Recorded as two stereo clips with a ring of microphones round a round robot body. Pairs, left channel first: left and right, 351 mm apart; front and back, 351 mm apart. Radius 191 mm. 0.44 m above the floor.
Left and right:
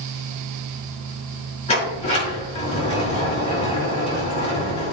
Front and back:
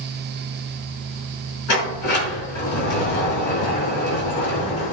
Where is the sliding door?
15° left, 5 m.